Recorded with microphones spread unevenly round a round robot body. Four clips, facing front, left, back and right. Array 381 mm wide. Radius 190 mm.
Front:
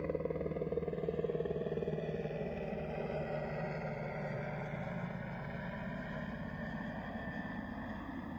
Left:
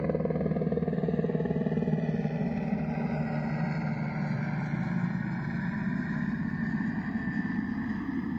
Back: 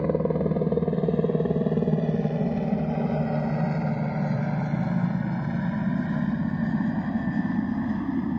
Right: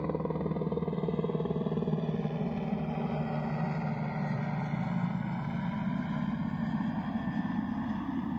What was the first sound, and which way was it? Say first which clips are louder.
A helicopter: left 4 dB, back 13 dB; 170° left.